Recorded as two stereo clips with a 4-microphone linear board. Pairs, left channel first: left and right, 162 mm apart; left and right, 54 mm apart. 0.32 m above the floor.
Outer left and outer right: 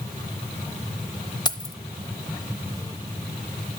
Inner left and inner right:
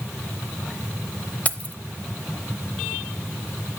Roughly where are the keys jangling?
Left.